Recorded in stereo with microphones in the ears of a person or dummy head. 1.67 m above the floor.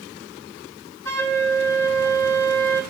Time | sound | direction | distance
1.1 | a flute | 15° left (ahead or behind) | 3 m